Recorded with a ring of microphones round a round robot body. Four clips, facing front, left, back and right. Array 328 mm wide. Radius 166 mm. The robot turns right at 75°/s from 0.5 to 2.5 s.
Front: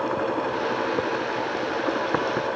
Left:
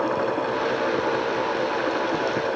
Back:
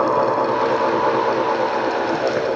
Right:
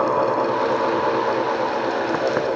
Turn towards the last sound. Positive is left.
No sound to turn to.